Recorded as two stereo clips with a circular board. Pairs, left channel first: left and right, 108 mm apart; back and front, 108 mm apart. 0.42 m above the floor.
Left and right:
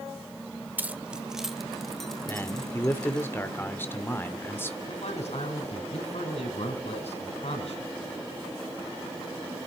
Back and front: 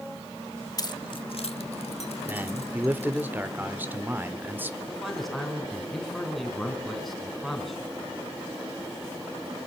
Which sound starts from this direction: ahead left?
A man speaking, at 2.3 s.